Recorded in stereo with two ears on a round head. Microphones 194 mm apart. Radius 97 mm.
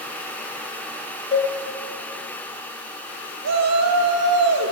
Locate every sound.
1.3 s a cowbell: 30° left (ahead or behind), 2.5 m
3.4 s a shout: 85° right, 4 m